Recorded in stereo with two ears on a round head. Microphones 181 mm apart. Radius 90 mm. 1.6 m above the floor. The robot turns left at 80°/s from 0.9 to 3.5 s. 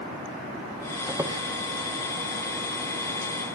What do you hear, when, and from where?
1.1 s a squeak: 10° right (ahead or behind), 1.1 m; by 1.4 s 20° right (ahead or behind), 1.1 m